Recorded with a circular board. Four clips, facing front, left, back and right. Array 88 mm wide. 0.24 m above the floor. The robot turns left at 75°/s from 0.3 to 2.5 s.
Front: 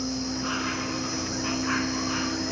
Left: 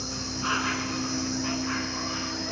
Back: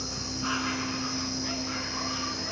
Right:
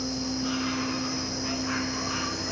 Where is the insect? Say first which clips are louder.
Right 3 dB, front 5 dB; 110° left, 1.3 m; by 2.5 s 55° right, 1.3 m.